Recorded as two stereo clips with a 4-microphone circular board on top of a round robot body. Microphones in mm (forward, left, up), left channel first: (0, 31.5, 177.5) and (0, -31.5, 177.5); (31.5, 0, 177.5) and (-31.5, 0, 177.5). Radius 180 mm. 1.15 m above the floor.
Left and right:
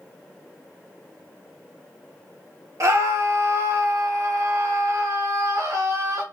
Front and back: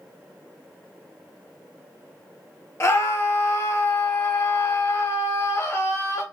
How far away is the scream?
About 0.8 m.